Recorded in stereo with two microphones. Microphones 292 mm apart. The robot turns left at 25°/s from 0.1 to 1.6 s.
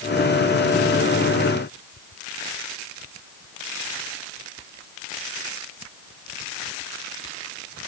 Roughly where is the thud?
No thud in this recording.